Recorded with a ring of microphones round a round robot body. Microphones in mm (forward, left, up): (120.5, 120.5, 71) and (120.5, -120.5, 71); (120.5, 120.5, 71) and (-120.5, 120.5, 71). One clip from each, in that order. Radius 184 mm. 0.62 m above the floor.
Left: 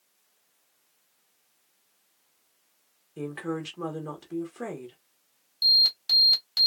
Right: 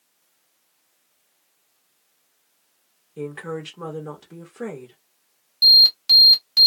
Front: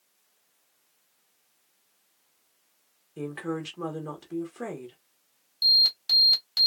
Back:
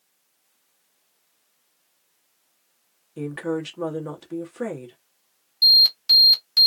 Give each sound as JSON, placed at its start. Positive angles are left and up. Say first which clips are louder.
{"t": 3.2, "sound": "a woman speaking", "louder": "right 2 dB, back 5 dB", "azimuth_deg": 150, "distance_m": 1.0}
{"t": 5.6, "sound": "an alarm", "louder": "right 8 dB, back 6 dB", "azimuth_deg": -150, "distance_m": 1.2}